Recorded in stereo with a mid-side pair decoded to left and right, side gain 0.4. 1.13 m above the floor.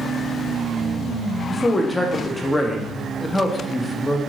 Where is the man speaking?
25° left, 0.6 m.